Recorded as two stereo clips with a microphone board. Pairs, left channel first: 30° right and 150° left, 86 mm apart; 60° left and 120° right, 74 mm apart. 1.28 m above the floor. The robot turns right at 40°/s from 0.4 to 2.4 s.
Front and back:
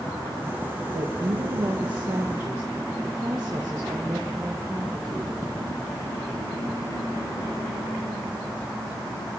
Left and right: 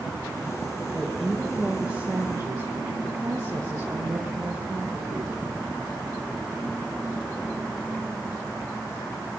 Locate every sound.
0.9 s a woman speaking: 140° left, 1.5 m; by 5.5 s 160° right, 1.5 m